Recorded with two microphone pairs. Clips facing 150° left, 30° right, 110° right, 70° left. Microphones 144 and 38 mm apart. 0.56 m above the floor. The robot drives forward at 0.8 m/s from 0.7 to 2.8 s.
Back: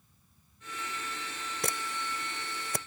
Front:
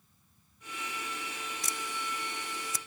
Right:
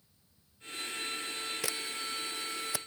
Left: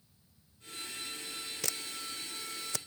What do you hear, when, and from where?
1.6 s a camera shutter: 175° left